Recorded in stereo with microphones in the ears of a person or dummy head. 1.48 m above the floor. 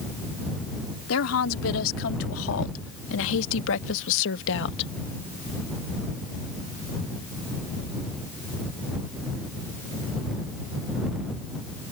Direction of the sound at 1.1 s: 80° left.